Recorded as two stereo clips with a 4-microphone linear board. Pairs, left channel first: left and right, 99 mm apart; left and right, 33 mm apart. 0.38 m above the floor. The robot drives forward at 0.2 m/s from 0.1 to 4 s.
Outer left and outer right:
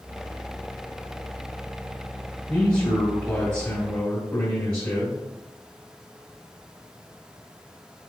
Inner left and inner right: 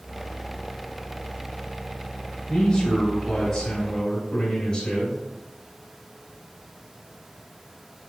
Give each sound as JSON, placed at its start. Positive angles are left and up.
{"t": 2.5, "sound": "a man speaking", "side_deg": 20, "distance_m": 1.3}